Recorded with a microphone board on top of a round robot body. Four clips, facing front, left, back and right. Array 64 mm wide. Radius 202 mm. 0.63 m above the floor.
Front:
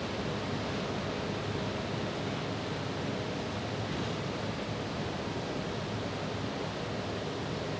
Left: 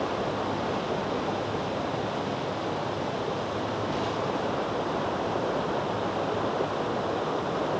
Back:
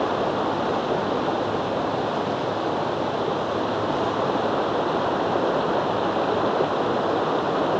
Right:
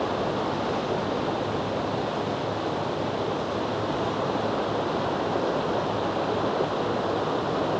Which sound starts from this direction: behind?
Running water, at 0.0 s.